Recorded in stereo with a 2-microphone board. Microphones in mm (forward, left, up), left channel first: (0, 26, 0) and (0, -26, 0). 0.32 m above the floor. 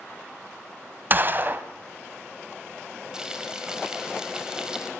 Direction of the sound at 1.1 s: 40° right (ahead or behind).